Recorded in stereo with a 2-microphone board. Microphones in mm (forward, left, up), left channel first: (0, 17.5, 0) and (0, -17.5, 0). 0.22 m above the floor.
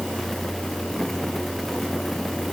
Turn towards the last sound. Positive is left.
No sound to turn to.